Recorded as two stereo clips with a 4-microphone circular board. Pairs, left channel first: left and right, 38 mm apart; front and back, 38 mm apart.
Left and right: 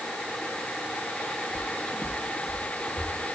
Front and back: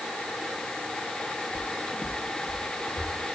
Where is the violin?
I don't hear a violin.